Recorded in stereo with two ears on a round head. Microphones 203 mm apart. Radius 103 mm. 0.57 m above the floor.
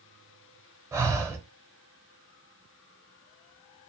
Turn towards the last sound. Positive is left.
turn(degrees=-15)  # may be behind; listen again after turning